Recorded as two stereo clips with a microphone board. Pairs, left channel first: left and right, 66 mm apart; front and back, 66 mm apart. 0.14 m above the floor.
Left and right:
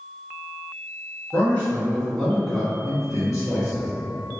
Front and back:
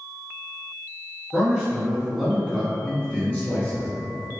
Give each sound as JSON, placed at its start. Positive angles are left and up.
{"t": 1.3, "sound": "a man speaking", "azimuth_deg": 125, "distance_m": 1.4}